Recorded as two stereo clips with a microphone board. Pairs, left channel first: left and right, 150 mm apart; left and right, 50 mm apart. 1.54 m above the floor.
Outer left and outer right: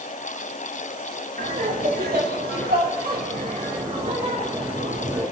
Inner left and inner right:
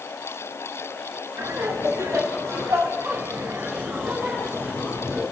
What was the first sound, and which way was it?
Laughter, 70° right (ahead or behind).